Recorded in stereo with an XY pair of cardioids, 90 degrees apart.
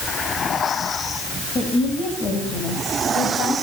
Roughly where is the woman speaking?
Ahead left.